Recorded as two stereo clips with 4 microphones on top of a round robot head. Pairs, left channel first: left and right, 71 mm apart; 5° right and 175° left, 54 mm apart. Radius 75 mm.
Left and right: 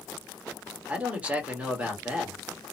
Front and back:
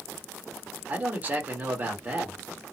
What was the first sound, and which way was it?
A man speaking, 150° right.